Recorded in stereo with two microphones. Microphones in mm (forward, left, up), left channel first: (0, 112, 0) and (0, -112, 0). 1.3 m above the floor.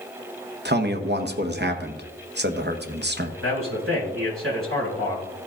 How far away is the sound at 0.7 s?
About 1.1 m.